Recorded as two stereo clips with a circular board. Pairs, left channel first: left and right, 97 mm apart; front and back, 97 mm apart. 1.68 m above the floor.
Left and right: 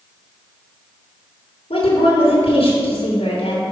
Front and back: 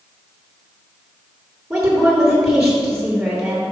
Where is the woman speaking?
105° left, 2.5 m.